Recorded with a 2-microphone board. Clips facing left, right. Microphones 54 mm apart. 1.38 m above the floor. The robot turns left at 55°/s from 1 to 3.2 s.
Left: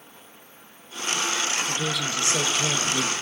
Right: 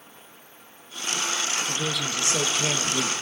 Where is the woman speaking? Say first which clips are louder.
Left 1 dB; 5° left, 1.2 m; by 3.1 s 75° right, 1.2 m.